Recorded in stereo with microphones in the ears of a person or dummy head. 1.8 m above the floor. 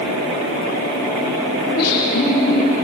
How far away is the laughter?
About 5 m.